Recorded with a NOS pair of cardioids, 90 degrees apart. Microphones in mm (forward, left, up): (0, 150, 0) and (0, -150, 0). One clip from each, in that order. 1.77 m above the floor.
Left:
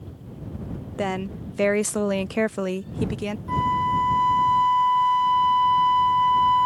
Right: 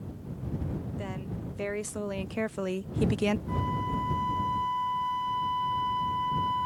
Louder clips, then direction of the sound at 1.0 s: Left 11 dB; 70° left.